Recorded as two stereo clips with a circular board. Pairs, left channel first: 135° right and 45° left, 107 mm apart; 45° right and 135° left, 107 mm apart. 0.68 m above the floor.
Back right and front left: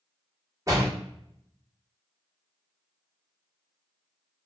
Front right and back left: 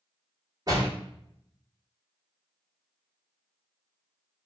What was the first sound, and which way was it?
A door slam, 95° left.